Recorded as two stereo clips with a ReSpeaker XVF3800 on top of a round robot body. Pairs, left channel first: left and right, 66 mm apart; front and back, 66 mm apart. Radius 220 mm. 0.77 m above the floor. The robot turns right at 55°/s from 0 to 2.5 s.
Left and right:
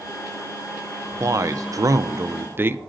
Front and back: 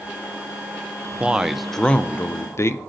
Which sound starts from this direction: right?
A man speaking, at 1.2 s.